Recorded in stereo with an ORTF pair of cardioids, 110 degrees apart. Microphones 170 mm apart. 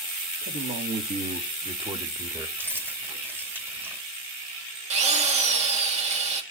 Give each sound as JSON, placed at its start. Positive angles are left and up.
{"t": 0.4, "sound": "a man speaking", "azimuth_deg": -65, "distance_m": 2.5}
{"t": 2.6, "sound": "keys jangling", "azimuth_deg": -15, "distance_m": 3.0}
{"t": 4.9, "sound": "a drill", "azimuth_deg": -40, "distance_m": 1.8}